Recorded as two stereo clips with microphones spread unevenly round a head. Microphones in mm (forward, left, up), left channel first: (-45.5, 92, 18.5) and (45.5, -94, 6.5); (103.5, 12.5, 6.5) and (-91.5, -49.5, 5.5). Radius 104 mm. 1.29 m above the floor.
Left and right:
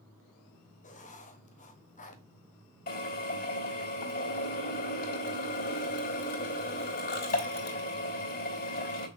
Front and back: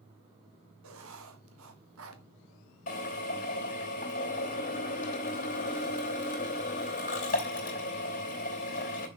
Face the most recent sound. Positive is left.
turn(degrees=70)